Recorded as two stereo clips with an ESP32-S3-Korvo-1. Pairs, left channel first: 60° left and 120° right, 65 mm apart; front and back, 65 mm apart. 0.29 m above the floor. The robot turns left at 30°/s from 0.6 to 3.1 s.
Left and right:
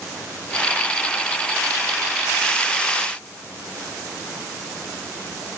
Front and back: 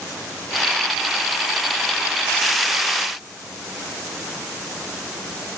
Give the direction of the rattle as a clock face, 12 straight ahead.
No rattle in this recording.